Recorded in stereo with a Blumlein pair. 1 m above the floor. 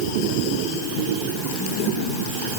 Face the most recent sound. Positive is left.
No sound to turn to.